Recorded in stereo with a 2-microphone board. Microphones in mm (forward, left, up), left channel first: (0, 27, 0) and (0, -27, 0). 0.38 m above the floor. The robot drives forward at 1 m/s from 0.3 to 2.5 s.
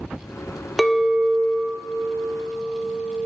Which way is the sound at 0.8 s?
5° left (ahead or behind).